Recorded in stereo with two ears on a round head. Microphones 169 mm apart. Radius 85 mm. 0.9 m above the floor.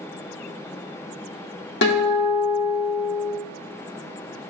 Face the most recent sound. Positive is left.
turn(degrees=65)  # may be behind; listen again after turning